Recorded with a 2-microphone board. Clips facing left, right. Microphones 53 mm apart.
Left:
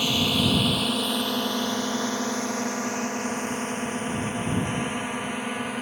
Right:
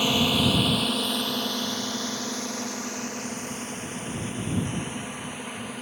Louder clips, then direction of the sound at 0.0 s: Right 1 dB; 20° right (ahead or behind).